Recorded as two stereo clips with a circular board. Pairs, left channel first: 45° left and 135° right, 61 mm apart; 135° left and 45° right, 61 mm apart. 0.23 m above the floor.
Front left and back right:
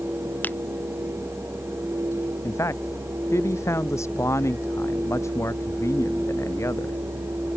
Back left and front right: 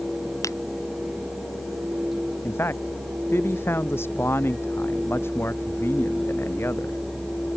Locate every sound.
0.4 s a finger snap: 105° left
2.4 s a man speaking: 85° left